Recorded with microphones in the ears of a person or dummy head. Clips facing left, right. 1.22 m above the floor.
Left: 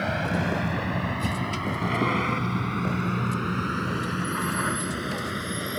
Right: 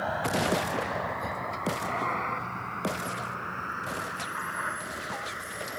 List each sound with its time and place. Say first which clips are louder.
0.0 s a vehicle: left 2 dB; 35° left (ahead or behind); by 5.8 s 50° left (ahead or behind)